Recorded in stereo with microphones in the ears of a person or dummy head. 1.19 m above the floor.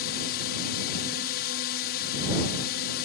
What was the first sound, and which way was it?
A drone, 55° left (ahead or behind).